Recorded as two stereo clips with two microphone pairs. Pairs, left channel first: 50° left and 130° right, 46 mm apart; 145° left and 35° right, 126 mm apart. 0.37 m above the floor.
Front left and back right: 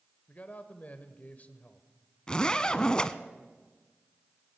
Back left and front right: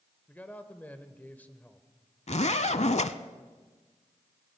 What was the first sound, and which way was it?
A man speaking, 70° left.